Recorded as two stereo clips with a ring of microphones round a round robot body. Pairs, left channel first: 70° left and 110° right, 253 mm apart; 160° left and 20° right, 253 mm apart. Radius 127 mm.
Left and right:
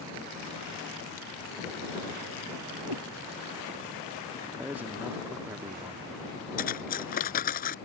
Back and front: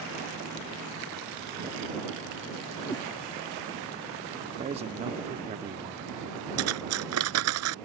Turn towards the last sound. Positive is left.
turn(degrees=10)